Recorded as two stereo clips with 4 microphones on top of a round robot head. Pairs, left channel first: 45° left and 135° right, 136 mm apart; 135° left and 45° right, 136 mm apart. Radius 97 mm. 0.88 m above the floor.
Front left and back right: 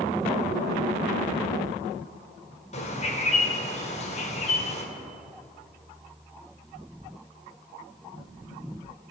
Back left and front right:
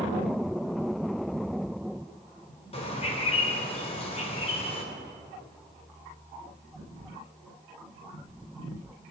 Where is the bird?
85° left, 2 m.